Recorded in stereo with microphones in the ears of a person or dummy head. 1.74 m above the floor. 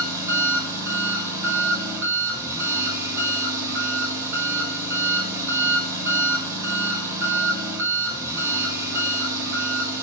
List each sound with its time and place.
0.0 s an engine running: 20° right (ahead or behind), 6 m